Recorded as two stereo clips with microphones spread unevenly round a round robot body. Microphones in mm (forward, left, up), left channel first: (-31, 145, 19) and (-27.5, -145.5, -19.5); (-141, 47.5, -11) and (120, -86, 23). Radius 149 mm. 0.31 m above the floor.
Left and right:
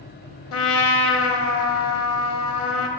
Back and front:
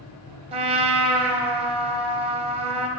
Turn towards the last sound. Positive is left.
turn(degrees=45)